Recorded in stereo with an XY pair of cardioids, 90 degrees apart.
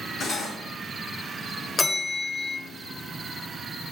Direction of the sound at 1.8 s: 40° left.